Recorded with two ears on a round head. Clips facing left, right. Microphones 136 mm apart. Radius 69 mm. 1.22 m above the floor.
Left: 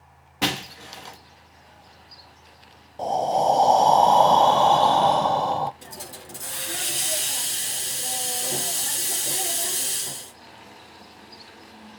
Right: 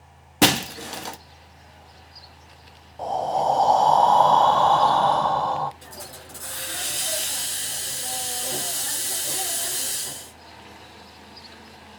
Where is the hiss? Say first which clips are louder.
Left 1 dB; 25° left (ahead or behind), 2.5 m.